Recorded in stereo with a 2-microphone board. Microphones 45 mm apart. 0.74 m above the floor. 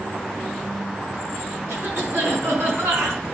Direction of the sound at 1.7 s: 75° right (ahead or behind).